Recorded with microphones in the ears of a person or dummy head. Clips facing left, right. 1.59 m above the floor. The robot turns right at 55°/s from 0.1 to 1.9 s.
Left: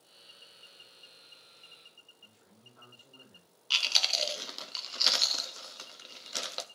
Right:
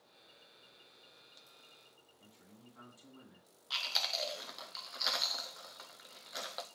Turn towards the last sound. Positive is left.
turn(degrees=35)  # may be behind; listen again after turning